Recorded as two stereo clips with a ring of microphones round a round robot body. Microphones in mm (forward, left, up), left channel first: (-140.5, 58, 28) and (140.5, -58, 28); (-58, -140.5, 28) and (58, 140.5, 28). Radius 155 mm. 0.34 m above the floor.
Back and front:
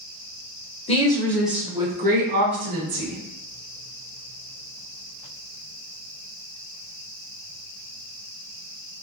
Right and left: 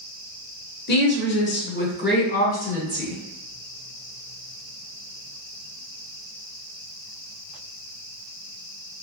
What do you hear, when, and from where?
0.9 s a woman speaking: 145° right, 1.0 m; by 3.2 s 50° right, 1.4 m